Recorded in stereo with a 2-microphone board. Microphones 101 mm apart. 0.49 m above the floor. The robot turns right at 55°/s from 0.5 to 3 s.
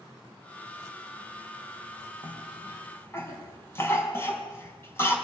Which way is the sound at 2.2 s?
65° left (ahead or behind).